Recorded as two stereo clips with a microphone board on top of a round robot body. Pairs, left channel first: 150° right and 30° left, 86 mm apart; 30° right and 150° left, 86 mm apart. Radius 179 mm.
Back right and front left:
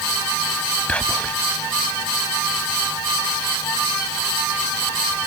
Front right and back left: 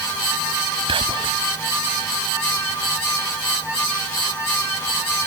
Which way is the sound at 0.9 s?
135° left.